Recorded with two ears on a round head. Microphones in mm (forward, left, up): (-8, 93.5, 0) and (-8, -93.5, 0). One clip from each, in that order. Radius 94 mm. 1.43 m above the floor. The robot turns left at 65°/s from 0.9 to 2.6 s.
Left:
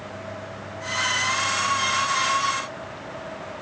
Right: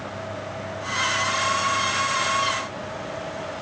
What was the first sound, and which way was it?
Only background noise.